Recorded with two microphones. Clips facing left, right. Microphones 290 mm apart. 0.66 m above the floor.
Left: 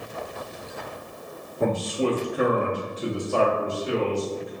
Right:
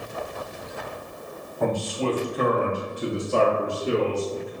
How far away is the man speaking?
About 0.8 m.